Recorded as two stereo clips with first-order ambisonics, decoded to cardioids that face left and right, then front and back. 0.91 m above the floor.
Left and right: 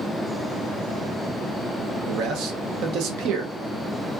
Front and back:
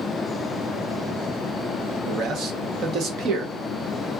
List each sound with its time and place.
2.1 s a man speaking: 125° right, 0.8 m